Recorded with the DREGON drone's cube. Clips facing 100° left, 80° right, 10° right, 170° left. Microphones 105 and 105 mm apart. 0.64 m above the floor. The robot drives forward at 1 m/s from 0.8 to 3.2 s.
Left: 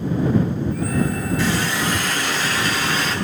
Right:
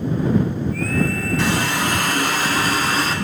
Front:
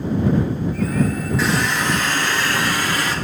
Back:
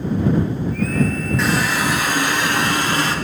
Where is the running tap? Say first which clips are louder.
Right 2 dB, back 1 dB; 100° right, 2.5 m; by 3.1 s 130° right, 3.5 m.